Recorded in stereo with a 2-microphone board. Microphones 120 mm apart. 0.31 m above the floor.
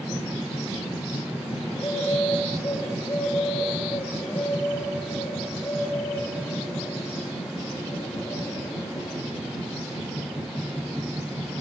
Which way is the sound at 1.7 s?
30° left (ahead or behind).